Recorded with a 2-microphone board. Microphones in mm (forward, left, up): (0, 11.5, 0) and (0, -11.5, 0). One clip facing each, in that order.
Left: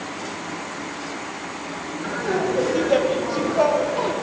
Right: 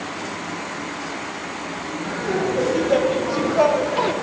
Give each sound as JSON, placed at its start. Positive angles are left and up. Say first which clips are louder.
{"t": 2.0, "sound": "laughter", "louder": "even", "side_deg": 25, "distance_m": 1.3}